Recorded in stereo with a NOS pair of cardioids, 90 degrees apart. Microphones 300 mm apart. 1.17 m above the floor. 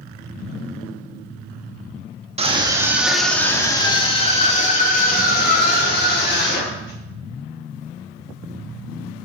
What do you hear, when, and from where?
2.4 s a scream: 20° right, 1.6 m; by 7.0 s 40° left, 4.5 m